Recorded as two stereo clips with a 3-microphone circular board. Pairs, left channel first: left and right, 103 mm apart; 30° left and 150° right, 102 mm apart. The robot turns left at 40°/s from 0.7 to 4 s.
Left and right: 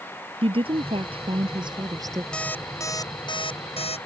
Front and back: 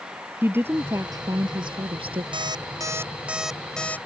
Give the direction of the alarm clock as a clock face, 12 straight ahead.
6 o'clock.